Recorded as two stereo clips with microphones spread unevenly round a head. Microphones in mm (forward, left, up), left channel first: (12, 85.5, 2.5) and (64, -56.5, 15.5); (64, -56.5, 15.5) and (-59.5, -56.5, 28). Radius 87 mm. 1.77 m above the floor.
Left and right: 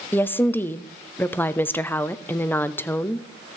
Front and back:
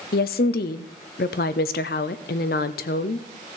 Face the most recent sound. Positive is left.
turn(degrees=30)